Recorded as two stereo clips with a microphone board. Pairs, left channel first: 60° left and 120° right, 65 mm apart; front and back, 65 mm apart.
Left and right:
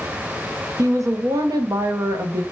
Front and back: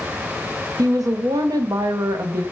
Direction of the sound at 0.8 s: 155° right.